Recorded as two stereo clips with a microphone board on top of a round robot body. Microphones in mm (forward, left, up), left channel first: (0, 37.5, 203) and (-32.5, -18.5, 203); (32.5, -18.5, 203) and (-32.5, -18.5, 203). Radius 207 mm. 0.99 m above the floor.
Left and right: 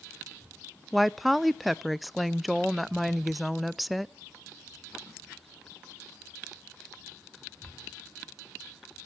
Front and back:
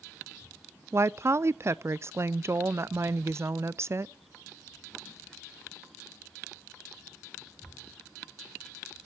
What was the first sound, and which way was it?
A woman speaking, 150° left.